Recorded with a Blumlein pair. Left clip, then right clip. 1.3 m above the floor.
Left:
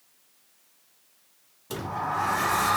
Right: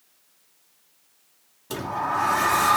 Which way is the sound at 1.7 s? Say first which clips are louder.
Right 3 dB; 10° right.